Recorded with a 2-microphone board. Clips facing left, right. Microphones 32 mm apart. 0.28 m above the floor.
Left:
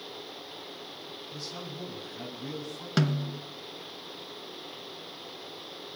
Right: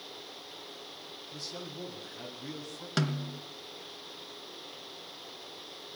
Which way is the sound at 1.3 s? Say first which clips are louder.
Left 1 dB; 5° left (ahead or behind).